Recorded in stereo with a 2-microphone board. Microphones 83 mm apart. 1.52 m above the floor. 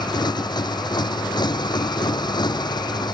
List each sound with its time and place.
0.0 s a motorcycle: 60° left (ahead or behind)